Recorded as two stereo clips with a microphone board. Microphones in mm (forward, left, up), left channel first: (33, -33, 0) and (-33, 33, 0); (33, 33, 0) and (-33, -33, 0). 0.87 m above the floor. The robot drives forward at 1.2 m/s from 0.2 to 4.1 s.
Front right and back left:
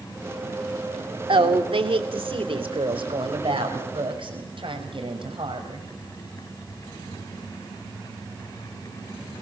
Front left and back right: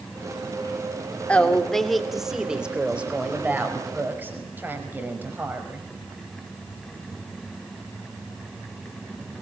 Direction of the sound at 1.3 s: 120° left.